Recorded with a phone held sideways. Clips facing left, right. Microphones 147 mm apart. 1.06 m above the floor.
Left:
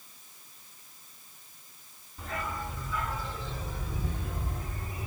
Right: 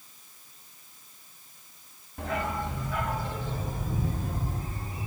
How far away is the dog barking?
About 2.5 m.